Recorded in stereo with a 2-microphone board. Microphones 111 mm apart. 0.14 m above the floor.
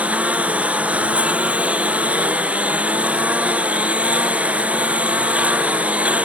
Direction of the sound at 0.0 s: 10° right (ahead or behind).